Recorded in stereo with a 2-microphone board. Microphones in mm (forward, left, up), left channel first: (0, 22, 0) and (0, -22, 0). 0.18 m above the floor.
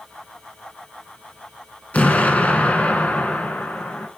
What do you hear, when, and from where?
1.9 s an explosion: 35° left (ahead or behind), 1.0 m